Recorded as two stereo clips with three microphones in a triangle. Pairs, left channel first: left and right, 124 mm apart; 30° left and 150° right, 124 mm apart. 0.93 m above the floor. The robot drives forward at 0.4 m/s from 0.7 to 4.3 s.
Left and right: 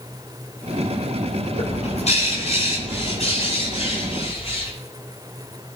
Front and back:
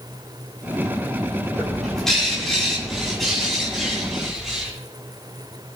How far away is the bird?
About 7.5 m.